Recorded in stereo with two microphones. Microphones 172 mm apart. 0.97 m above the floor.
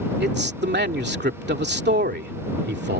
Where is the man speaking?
80° right.